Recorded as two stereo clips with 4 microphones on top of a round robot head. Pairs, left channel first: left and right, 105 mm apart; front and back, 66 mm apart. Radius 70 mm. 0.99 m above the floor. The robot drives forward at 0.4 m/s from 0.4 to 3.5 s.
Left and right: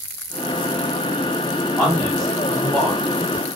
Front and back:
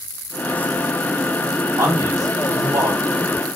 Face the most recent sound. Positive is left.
turn(degrees=175)